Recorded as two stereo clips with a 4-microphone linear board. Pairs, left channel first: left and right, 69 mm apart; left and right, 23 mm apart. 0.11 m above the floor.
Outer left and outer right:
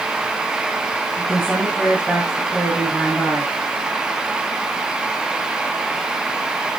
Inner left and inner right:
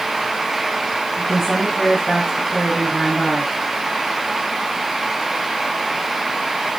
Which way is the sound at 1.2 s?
15° left (ahead or behind).